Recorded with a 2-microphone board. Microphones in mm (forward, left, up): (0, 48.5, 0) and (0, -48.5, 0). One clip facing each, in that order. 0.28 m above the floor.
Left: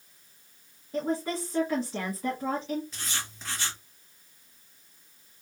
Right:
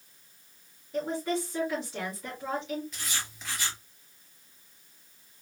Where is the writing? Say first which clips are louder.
Even; 30° left (ahead or behind), 3 m.